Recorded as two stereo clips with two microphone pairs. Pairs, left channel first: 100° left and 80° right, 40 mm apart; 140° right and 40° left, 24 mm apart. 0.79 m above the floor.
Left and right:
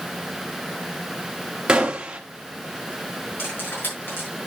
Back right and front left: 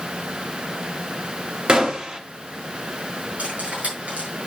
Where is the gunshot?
10° right, 1.2 m.